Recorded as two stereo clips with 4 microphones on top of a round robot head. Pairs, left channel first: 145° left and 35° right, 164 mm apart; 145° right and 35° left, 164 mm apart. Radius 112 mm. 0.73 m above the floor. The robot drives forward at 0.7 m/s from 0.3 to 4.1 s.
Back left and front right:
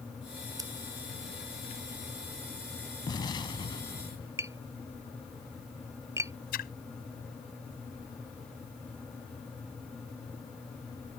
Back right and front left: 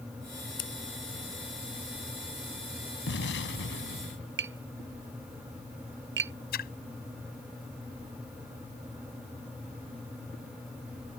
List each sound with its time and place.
0.6 s scissors: 105° right
3.1 s an explosion: 145° right; by 4.3 s 150° right
4.4 s tapping: 40° left
6.5 s a splash: straight behind